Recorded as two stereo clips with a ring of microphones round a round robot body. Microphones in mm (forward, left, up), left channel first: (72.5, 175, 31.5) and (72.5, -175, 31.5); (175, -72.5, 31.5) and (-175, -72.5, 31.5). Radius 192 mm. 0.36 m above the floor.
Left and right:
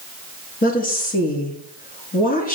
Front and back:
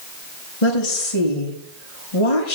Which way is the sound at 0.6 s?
25° left.